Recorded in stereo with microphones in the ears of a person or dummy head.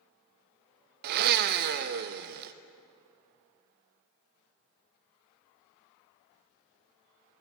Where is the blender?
50° right (ahead or behind), 0.6 m.